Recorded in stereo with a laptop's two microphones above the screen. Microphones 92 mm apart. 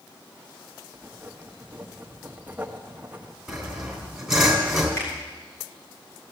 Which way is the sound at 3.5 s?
Centre (ahead or behind).